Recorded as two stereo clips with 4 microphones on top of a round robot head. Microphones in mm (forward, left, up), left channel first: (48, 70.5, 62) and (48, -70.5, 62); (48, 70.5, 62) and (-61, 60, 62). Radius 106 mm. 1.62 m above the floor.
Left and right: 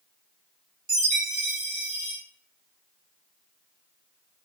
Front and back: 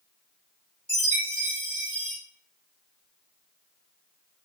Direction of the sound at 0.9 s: 100° right.